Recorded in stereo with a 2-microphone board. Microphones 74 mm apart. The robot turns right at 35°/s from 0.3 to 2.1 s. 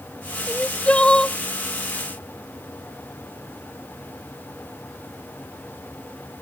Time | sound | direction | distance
0.5 | crying | 20° left (ahead or behind) | ?